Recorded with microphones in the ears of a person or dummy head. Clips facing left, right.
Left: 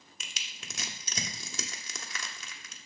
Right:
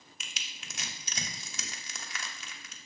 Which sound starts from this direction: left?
Crushing, at 0.2 s.